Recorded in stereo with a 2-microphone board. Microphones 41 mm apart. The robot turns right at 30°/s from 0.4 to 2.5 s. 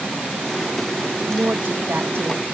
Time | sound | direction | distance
1.3 | a woman speaking | 135° right | 1.0 m